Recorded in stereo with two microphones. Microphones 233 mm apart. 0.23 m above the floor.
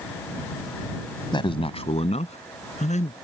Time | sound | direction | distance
1.3 | a man speaking | 20° left (ahead or behind) | ?